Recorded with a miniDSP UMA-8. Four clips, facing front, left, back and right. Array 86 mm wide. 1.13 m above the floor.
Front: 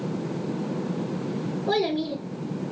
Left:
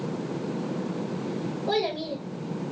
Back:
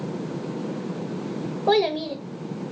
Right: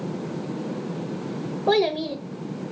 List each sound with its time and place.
1.7 s a child speaking: 140° right, 0.6 m